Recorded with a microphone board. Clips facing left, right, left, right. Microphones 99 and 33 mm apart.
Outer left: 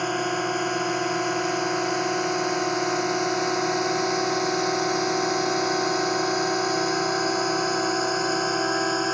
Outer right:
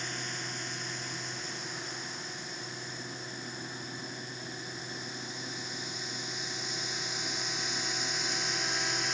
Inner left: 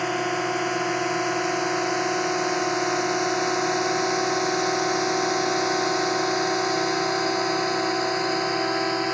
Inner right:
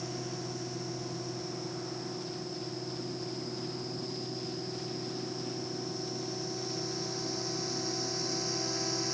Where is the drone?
65° left (ahead or behind); by 9.1 s 50° left (ahead or behind).